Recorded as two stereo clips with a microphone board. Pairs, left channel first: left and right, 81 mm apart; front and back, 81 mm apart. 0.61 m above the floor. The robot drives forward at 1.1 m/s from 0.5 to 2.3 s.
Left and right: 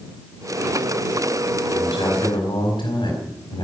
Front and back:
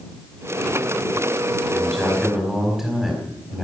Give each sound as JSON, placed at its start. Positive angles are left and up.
{"t": 1.7, "sound": "a man speaking", "azimuth_deg": 85, "distance_m": 4.5}